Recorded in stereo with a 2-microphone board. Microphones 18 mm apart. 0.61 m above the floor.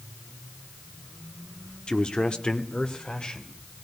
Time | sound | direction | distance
1.9 | a man speaking | 50° left (ahead or behind) | 1.6 m